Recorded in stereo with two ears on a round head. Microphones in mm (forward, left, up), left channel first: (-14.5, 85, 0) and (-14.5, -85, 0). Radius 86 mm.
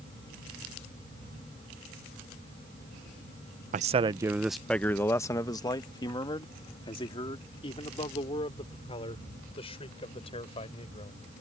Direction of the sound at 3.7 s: 45° right (ahead or behind).